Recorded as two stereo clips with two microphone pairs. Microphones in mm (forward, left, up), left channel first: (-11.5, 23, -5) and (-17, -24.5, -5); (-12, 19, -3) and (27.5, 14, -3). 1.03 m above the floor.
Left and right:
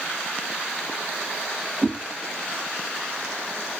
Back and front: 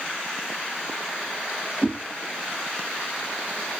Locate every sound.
1.8 s a whoosh: 135° right, 0.8 m